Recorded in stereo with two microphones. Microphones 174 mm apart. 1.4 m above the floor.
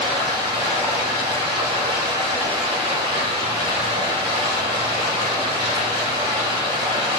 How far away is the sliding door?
I don't hear a sliding door.